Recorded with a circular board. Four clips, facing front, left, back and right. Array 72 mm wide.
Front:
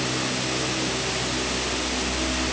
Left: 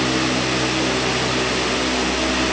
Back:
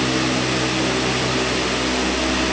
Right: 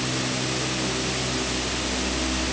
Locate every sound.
Only background noise.